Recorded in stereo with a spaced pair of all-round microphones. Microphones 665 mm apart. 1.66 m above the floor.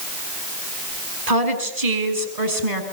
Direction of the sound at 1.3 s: 65° right (ahead or behind).